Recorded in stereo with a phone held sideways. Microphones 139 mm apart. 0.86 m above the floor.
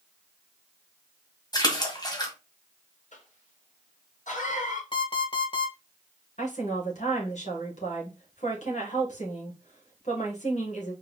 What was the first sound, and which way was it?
A splash, 30° left (ahead or behind).